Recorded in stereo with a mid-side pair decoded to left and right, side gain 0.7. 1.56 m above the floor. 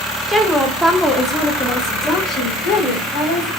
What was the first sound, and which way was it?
A woman speaking, 15° right.